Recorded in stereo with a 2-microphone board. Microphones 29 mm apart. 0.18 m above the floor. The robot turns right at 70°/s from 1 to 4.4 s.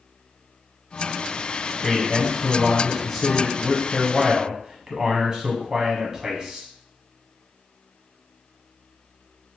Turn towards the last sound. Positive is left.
turn(degrees=-20)  # may be behind; listen again after turning